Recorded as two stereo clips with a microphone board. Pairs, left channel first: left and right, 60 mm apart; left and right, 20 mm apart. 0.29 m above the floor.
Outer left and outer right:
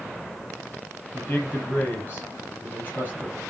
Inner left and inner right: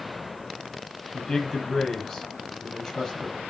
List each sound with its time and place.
1.1 s a man speaking: 30° left (ahead or behind), 7.5 m